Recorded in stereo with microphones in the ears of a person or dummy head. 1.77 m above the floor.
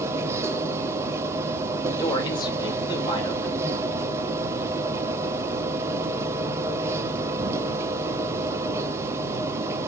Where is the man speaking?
25° left (ahead or behind), 2.5 m.